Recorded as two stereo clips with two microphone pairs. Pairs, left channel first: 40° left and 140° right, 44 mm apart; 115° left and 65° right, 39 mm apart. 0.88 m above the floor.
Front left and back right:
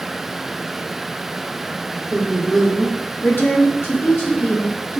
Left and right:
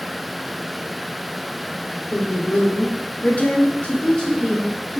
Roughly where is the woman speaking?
Behind left.